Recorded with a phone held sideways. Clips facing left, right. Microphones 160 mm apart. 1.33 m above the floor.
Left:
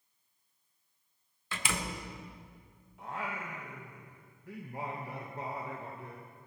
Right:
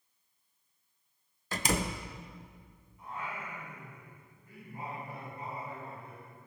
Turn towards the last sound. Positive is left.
turn(degrees=80)